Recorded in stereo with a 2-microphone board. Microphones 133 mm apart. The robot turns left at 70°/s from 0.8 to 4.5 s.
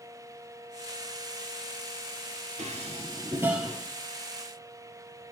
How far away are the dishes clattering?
About 1.8 m.